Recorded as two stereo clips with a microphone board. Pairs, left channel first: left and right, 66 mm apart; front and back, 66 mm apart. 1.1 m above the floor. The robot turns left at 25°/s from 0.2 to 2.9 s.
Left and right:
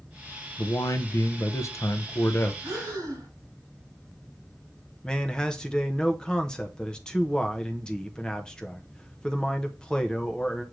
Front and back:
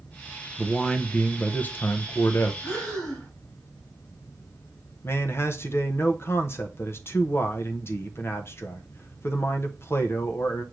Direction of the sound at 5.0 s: 15° left.